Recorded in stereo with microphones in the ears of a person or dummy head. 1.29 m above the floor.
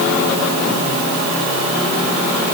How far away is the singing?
No singing in this recording.